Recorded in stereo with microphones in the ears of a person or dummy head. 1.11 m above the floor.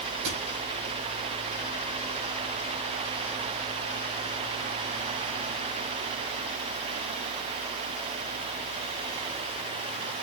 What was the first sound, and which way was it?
A thud, 70° right (ahead or behind).